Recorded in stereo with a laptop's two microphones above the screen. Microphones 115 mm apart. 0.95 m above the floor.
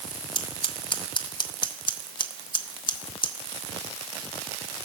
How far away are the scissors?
About 0.7 m.